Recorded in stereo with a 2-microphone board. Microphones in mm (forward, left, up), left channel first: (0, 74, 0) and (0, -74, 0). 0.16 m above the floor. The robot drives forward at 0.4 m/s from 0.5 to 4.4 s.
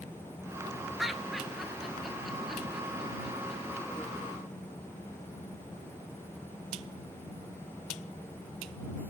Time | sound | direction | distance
1.0 | laughter | centre (ahead or behind) | 2 m